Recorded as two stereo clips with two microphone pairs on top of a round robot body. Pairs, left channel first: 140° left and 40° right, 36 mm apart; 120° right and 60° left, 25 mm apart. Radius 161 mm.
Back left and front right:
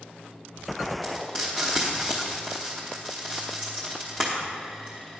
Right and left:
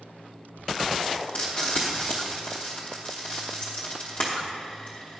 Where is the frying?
145° right, 0.7 m.